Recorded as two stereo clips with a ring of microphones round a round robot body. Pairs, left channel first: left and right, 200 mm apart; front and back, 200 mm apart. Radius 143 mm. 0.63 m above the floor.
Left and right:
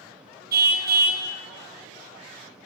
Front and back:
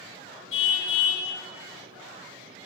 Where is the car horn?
50° right, 3.5 m.